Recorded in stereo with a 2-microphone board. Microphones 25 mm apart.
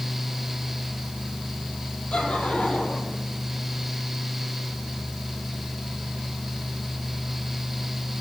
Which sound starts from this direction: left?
Laughter, at 2.1 s.